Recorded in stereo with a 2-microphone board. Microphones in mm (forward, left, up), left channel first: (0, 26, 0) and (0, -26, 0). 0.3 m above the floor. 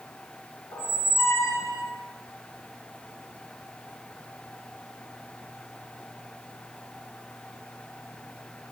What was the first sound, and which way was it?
A squeak, 90° left.